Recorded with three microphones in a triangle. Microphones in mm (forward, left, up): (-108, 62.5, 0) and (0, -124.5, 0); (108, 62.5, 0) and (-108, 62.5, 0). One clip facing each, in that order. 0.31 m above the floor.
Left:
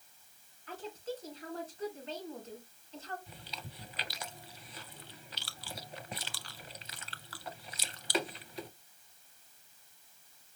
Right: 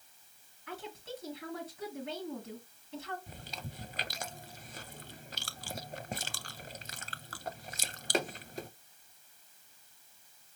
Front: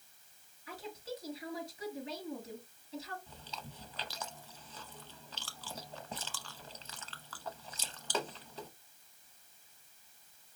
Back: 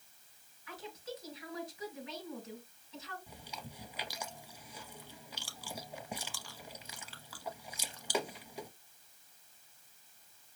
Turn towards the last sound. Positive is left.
turn(degrees=-105)